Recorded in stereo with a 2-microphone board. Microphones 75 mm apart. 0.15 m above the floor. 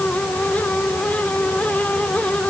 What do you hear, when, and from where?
Only background noise.